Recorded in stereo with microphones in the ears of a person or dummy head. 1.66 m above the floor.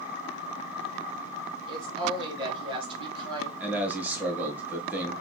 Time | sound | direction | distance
1.7 | a woman speaking | 25° right (ahead or behind) | 2.0 m
3.6 | a man speaking | 5° right (ahead or behind) | 1.5 m